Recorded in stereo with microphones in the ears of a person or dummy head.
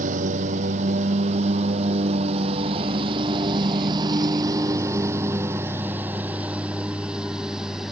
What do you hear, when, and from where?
0.0 s a lawn mower: 45° right (ahead or behind); by 7.9 s centre (ahead or behind)